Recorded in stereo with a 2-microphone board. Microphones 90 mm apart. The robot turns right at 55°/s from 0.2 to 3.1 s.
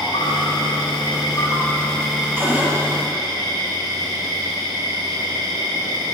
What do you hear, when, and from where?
0.0 s an insect: 75° left, 5.5 m; by 6.2 s 125° right, 5.5 m
2.4 s a cupboard door: 25° right (ahead or behind), 5 m; by 2.7 s 10° right (ahead or behind), 5 m